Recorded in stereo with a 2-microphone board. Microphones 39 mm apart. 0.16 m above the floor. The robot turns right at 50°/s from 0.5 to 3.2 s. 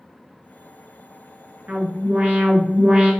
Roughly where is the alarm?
Right.